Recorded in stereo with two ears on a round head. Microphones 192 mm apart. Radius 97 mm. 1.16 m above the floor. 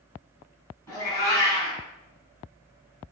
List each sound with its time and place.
0.9 s a cat meowing: 15° left (ahead or behind), 2.5 m